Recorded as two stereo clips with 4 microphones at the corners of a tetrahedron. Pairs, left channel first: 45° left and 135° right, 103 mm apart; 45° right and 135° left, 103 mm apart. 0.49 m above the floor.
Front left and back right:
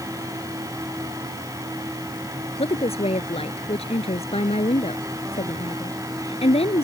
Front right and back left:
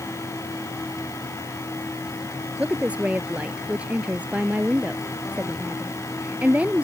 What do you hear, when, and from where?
2.6 s a woman speaking: 55° left